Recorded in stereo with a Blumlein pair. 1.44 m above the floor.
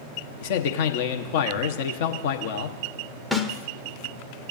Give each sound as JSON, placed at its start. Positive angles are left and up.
{"t": 0.4, "sound": "a man speaking", "azimuth_deg": 50, "distance_m": 0.9}
{"t": 3.3, "sound": "a snare drum", "azimuth_deg": 5, "distance_m": 0.7}